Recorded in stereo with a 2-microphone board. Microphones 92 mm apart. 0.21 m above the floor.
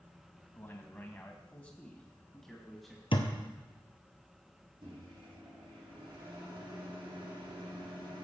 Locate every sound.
0.6 s a man speaking: 25° left (ahead or behind), 1.5 m; by 3.0 s centre (ahead or behind), 1.8 m
3.1 s a thud: 70° left (ahead or behind), 1.8 m
4.8 s a microwave: 70° right (ahead or behind), 6.5 m